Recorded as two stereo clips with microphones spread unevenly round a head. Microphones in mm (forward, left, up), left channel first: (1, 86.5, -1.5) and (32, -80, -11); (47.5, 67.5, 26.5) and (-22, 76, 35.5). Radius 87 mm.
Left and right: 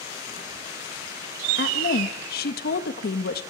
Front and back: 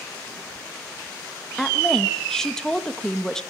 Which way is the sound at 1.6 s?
70° left.